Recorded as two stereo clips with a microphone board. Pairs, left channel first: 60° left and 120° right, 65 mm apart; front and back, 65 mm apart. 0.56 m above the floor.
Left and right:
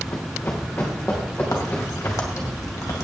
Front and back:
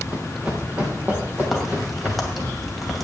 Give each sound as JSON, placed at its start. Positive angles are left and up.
{"t": 0.1, "sound": "running footsteps", "azimuth_deg": 105, "distance_m": 3.0}
{"t": 1.5, "sound": "a crack", "azimuth_deg": 90, "distance_m": 2.5}